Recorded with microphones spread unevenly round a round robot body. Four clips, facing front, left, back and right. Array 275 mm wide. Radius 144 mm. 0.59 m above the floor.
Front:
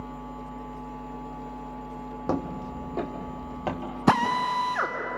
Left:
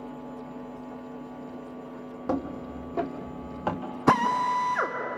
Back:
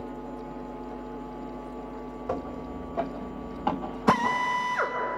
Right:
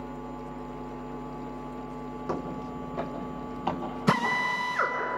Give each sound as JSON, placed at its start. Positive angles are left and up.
{"t": 2.3, "sound": "footsteps", "azimuth_deg": 15, "distance_m": 1.6}
{"t": 4.1, "sound": "a drill", "azimuth_deg": 25, "distance_m": 2.5}